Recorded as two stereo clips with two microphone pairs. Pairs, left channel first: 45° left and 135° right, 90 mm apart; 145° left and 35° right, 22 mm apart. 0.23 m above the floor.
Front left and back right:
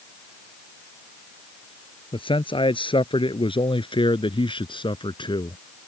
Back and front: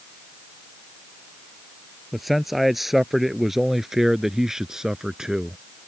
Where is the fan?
No fan in this recording.